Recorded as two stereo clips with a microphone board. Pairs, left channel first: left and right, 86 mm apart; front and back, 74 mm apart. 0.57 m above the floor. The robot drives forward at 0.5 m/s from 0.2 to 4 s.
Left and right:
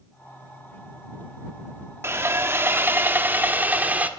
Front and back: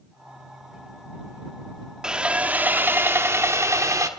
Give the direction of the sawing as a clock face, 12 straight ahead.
4 o'clock.